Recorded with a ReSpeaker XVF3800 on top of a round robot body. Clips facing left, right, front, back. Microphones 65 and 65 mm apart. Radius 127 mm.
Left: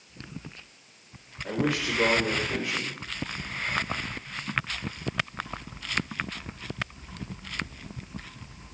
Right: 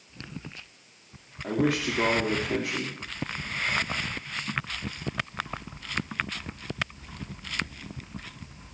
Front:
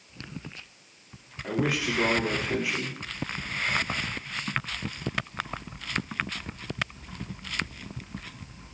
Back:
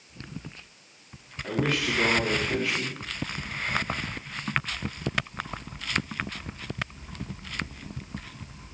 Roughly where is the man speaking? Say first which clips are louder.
Right 2 dB, even; right.